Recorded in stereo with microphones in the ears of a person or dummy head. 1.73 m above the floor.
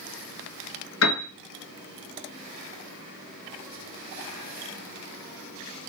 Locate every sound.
1.0 s a piano: 70° left (ahead or behind), 2.5 m